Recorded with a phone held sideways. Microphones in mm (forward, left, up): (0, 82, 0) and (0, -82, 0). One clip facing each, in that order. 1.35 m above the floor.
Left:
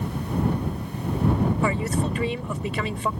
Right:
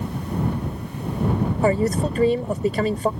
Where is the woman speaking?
40° right (ahead or behind).